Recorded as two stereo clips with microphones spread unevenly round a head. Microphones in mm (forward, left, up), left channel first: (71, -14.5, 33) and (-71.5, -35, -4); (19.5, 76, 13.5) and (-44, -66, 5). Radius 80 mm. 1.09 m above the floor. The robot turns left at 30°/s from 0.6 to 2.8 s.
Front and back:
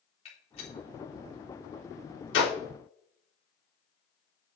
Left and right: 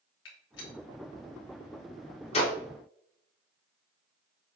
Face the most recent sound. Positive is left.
turn(degrees=-5)